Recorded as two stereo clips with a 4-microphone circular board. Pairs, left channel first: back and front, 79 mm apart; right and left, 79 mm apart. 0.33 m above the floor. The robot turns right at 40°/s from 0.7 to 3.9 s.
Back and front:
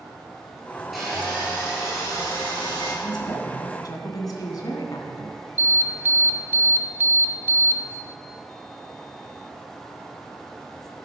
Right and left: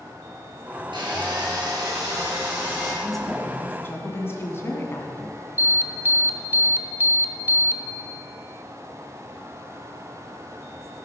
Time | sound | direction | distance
0.9 | sawing | 90° left | 5.5 m
3.0 | a woman speaking | 175° left | 2.5 m
5.6 | an alarm | 45° left | 1.1 m